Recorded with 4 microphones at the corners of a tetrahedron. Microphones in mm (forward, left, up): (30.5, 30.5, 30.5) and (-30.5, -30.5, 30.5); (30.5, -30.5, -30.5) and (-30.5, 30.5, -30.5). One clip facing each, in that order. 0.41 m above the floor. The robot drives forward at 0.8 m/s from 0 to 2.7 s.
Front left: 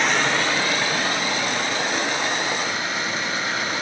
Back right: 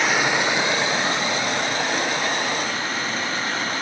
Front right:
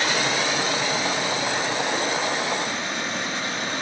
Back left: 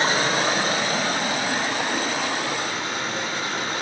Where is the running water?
140° left, 0.7 m; by 3.8 s 175° left, 2.5 m.